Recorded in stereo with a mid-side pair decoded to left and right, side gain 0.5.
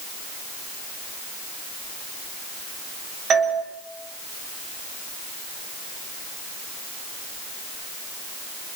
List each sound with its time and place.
3.3 s a doorbell: 55° right, 4 m